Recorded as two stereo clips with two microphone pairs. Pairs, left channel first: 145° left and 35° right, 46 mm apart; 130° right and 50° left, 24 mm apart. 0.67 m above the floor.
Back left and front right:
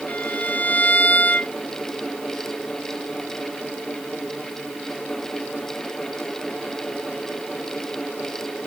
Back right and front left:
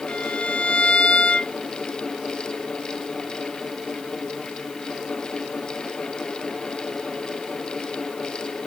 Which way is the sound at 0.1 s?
160° right.